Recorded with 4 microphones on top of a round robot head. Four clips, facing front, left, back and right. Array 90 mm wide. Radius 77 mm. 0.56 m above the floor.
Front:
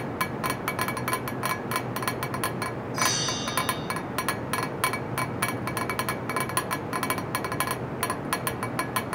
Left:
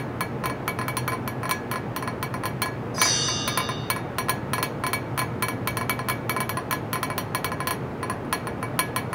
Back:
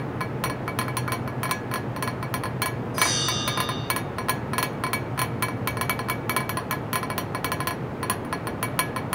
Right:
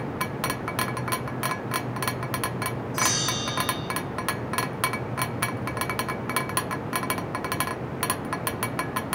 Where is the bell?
145° right, 5.5 m.